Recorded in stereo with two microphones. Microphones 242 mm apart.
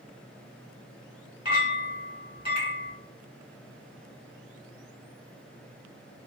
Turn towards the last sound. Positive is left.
turn(degrees=35)  # may be behind; listen again after turning